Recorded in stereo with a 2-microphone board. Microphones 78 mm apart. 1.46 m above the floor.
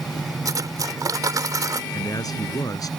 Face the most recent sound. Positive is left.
turn(degrees=55)  # may be behind; listen again after turning